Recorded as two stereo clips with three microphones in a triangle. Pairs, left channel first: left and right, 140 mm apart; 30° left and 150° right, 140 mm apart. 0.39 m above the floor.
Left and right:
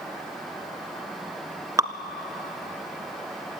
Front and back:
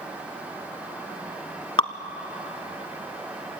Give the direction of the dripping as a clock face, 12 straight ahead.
1 o'clock.